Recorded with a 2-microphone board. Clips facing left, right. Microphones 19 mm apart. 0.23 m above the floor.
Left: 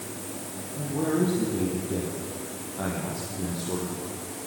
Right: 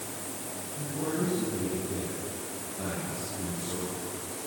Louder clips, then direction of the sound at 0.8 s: Left 6 dB; 40° left (ahead or behind).